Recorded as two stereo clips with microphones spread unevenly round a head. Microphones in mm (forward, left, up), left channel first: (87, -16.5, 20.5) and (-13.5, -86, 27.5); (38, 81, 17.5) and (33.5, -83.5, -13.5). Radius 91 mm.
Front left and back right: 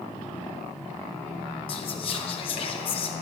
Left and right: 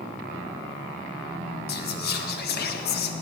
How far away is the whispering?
About 1.0 m.